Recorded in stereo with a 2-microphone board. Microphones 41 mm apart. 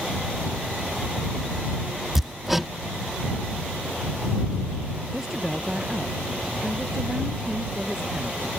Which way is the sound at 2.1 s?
5° right (ahead or behind).